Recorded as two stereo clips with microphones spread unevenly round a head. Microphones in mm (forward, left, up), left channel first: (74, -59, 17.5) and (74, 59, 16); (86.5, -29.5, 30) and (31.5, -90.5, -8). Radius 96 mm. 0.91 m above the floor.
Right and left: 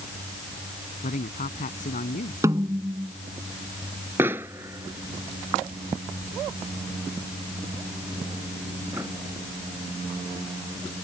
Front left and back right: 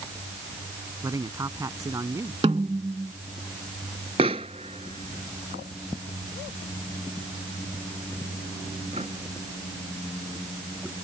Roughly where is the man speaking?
Right.